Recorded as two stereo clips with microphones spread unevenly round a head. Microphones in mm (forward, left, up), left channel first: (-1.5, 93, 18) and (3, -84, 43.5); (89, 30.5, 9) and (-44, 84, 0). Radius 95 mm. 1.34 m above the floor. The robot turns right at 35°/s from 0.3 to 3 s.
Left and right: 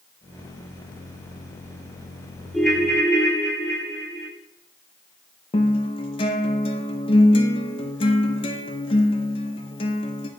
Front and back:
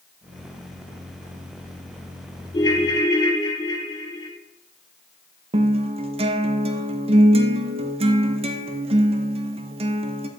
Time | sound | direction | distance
2.5 | a ringtone | 15° right | 0.9 m
5.5 | a guitar | 150° left | 0.5 m